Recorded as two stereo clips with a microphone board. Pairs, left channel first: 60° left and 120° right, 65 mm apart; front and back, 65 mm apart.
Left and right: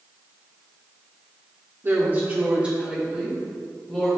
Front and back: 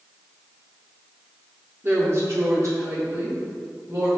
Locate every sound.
1.8 s a woman speaking: 150° right, 1.6 m; by 4.1 s 145° left, 3.5 m